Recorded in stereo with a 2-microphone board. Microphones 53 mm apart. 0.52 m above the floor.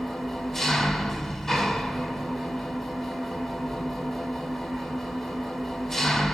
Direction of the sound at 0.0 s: 5° left (ahead or behind).